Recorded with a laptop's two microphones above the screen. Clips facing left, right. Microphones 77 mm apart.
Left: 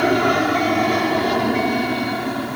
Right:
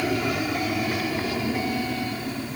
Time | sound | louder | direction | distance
0.0 | an aircraft | left 9 dB | 65° left (ahead or behind) | ?